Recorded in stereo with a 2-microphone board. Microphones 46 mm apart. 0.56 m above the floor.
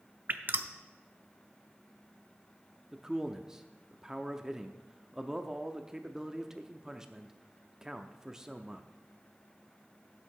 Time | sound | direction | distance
0.3 | dripping | 45° right (ahead or behind) | 0.5 m
2.9 | a man speaking | 10° right (ahead or behind) | 0.6 m